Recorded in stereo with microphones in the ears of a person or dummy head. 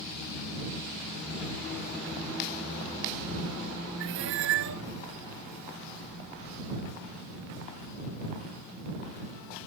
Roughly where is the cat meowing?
Right.